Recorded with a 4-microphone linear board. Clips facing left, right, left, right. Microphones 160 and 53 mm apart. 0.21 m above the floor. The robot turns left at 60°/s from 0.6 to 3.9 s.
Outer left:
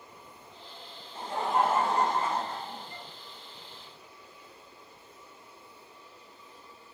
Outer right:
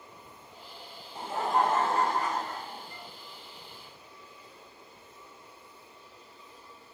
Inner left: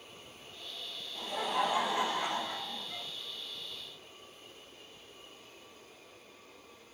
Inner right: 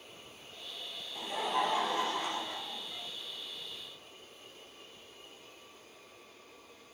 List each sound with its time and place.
1.1 s laughter: 160° right, 1.2 m; by 3.1 s 85° left, 1.2 m